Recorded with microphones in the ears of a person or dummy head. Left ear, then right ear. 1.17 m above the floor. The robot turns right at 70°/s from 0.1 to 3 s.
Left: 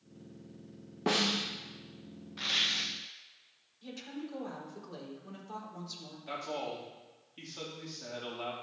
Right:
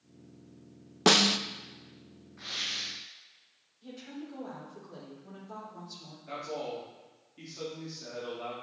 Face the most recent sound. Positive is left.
turn(degrees=75)  # may be behind; listen again after turning